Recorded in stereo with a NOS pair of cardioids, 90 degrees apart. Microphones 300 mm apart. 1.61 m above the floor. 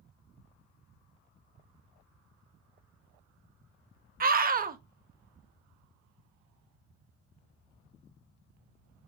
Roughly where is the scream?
Ahead right.